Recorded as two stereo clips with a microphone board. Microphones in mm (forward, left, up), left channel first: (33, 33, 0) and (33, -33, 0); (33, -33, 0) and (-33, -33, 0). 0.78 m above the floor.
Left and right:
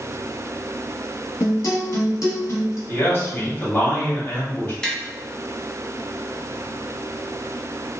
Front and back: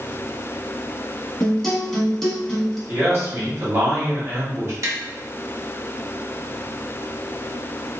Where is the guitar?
85° left, 1.0 m.